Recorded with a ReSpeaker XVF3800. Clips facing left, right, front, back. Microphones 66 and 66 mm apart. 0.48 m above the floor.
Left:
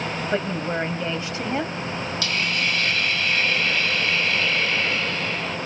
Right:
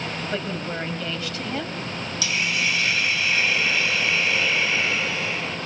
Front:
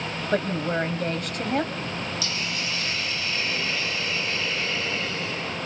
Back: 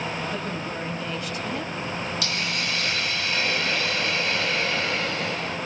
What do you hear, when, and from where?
0.3 s a woman speaking: 25° left, 2.5 m
2.2 s a hiss: 170° right, 3 m